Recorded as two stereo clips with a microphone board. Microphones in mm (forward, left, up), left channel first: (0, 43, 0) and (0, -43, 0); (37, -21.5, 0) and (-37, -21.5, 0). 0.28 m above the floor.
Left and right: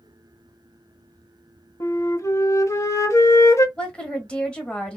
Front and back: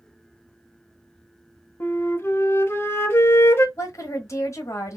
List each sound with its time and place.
1.8 s a flute: 50° left, 0.7 m
3.8 s a woman speaking: 15° left, 1.4 m